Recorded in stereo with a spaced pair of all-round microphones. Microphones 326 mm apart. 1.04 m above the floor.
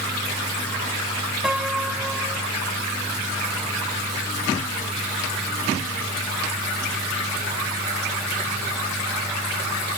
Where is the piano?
Centre (ahead or behind).